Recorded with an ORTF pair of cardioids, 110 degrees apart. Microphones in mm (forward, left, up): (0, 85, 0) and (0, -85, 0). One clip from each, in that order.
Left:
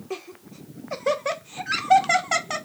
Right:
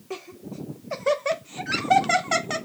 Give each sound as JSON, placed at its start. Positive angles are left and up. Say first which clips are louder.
{"t": 0.1, "sound": "laughter", "louder": "even", "azimuth_deg": 0, "distance_m": 0.7}